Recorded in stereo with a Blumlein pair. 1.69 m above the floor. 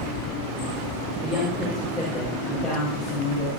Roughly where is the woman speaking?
Ahead.